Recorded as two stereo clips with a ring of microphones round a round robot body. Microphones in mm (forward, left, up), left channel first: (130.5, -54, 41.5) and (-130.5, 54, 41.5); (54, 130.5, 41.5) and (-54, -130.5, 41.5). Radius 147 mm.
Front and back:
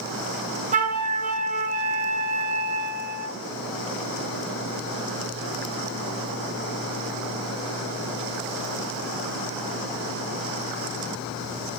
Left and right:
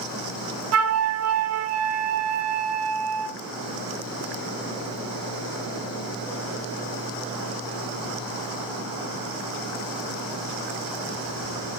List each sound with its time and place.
0.7 s a flute: 140° right, 1.1 m